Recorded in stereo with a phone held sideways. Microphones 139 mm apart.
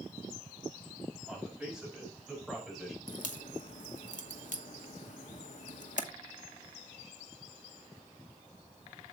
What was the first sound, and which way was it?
A man speaking, 5° right (ahead or behind).